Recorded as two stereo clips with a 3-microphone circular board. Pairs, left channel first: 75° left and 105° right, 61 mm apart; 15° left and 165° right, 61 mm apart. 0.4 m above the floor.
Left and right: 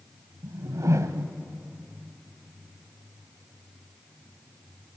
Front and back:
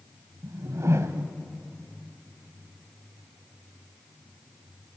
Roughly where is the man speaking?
No man speaking in this recording.